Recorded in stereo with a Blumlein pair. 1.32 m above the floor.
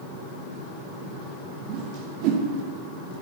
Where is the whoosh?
40° right, 1.0 m.